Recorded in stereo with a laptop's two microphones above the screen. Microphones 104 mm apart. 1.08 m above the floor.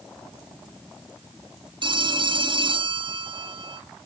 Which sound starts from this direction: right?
A phone ringing, at 1.8 s.